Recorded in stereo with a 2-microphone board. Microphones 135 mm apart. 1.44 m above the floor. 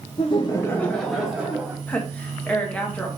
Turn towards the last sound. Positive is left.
turn(degrees=10)  # may be behind; listen again after turning